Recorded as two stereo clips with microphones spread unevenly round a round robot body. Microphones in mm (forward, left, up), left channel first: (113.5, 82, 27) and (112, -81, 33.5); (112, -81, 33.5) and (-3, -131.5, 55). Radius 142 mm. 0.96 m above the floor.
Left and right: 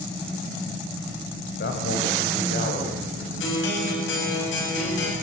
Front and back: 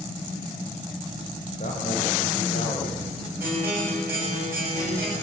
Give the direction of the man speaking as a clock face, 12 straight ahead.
9 o'clock.